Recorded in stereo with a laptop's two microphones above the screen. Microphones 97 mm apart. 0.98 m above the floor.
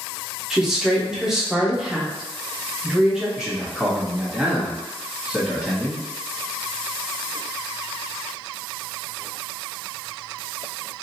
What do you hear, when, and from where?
0.5 s a woman speaking: 5° right (ahead or behind), 0.7 m
3.4 s a man speaking: 5° right (ahead or behind), 1.4 m